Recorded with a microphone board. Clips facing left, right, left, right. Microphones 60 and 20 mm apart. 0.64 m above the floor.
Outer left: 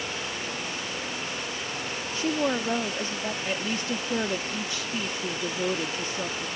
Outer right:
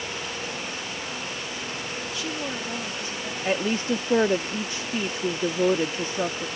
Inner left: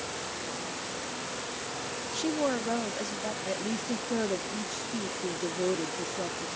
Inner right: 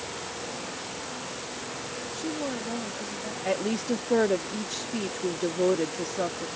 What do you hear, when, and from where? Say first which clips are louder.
2.1 s a woman speaking: outer left 8 dB, inner left 4 dB; 35° left (ahead or behind)
3.4 s a woman speaking: outer right 9 dB, inner right 8 dB; 35° right (ahead or behind)